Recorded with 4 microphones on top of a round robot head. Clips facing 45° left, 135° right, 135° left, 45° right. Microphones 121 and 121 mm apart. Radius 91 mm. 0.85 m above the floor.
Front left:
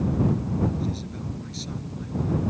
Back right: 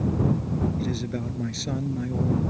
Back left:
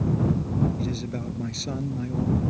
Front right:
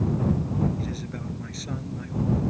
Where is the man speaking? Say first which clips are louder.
Back right 3 dB, back left 3 dB; 160° right; by 2.4 s 165° right.